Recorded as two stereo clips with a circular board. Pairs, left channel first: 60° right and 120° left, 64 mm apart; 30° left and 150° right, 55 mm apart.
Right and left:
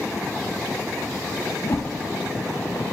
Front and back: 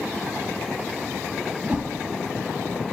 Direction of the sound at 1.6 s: 85° right.